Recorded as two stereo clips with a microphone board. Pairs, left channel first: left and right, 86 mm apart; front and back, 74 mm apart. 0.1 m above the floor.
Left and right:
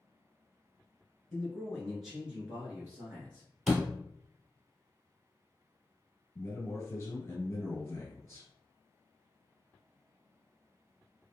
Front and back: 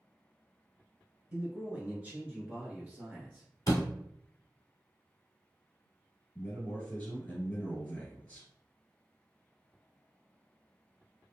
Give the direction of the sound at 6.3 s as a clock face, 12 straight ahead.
10 o'clock.